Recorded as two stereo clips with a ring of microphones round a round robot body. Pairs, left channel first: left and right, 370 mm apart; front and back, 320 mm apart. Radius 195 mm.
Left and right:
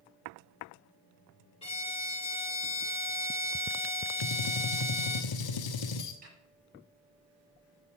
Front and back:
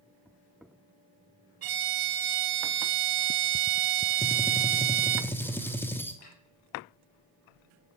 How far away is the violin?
About 1.5 m.